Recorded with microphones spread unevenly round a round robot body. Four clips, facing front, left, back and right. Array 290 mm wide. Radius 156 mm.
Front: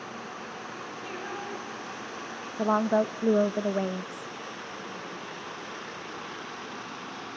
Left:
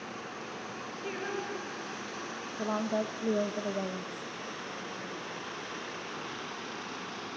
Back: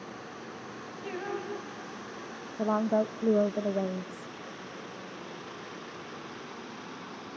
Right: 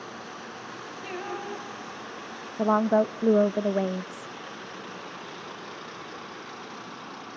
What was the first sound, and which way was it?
Singing, 110° right.